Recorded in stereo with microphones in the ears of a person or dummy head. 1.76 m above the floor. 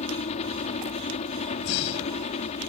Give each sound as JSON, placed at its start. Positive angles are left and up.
{"t": 0.0, "sound": "a helicopter", "side_deg": 40}
{"t": 1.6, "sound": "breathing", "side_deg": 70}